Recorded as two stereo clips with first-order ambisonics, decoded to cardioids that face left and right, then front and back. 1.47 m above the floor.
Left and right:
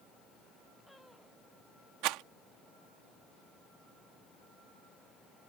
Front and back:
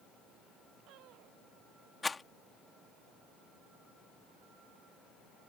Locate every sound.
2.0 s a rattle: 80° right